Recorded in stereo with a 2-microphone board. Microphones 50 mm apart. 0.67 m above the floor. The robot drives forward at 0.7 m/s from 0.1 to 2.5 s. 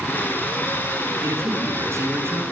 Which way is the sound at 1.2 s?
70° right (ahead or behind).